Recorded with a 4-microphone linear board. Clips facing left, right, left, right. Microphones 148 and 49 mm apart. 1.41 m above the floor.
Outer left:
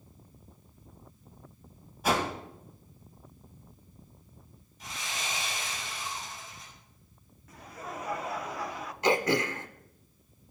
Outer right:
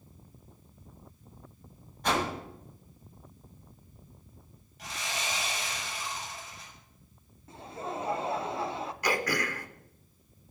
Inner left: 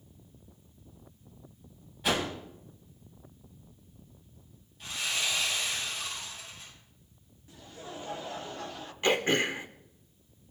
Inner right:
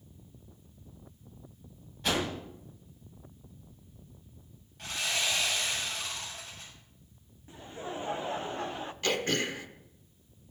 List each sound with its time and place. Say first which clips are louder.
2.0 s a whoosh: outer left 1 dB, inner left 1 dB; 5° left (ahead or behind), 1.9 m
4.8 s sawing: outer right 2 dB, inner right 1 dB; 80° right, 5.5 m
7.5 s laughter: outer right 4 dB, inner right 5 dB; 25° right (ahead or behind), 0.7 m
9.0 s throat clearing: outer left 5 dB, inner left 4 dB; 25° left (ahead or behind), 0.6 m